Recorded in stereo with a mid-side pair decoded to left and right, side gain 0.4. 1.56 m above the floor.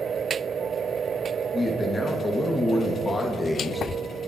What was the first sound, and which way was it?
A man speaking, 25° left.